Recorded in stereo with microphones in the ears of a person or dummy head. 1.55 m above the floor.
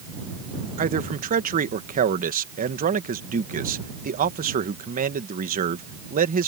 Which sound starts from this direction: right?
A man speaking, at 0.8 s.